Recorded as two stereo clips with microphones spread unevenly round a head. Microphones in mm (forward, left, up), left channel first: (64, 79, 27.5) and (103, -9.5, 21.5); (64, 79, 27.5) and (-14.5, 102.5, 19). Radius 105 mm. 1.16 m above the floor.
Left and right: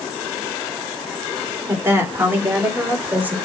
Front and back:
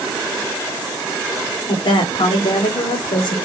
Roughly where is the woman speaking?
Ahead.